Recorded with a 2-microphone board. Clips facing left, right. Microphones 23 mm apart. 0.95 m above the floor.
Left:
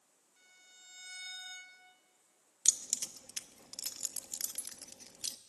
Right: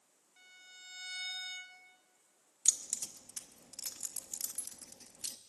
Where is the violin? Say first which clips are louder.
Right 5 dB; 25° right (ahead or behind), 2 m.